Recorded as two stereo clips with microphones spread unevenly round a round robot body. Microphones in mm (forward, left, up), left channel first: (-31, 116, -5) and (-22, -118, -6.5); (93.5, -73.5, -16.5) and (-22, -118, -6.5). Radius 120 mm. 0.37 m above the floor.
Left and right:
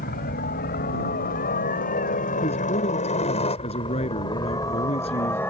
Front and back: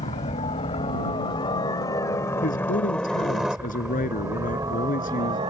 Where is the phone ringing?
I don't hear a phone ringing.